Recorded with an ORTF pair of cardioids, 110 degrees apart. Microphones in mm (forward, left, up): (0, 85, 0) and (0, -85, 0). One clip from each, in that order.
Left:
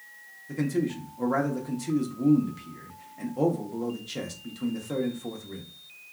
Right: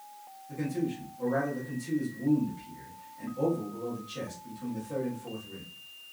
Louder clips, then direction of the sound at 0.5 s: Left 4 dB; 45° left.